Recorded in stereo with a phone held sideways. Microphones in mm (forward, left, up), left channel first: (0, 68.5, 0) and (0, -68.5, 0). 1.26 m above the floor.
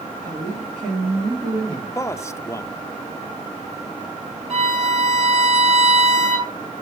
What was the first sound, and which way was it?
A man speaking, 85° right.